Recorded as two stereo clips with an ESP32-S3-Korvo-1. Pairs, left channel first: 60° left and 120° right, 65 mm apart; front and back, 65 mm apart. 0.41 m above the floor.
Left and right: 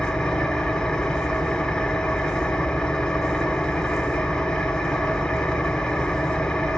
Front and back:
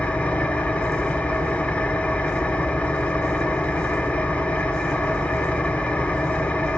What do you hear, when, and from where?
0.0 s an engine running: 5° left, 0.8 m